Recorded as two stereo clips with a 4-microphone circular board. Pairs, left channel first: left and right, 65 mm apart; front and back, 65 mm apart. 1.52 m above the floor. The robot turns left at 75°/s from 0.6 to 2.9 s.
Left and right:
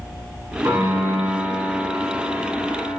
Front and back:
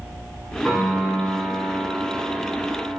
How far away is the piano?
About 2 m.